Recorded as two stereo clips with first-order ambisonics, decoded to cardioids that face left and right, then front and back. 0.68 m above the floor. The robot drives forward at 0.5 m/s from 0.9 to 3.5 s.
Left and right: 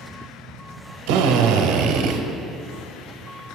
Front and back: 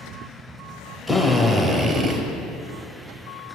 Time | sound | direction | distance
1.1 | a drill | 90° right | 0.9 m